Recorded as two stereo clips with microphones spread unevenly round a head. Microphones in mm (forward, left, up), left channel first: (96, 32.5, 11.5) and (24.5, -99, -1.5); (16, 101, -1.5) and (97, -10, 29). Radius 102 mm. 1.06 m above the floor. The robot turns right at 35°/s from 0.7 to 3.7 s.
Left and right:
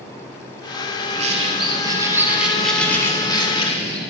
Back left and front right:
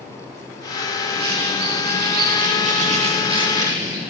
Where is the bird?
85° right, 2.5 m; by 4.0 s 10° left, 2.5 m.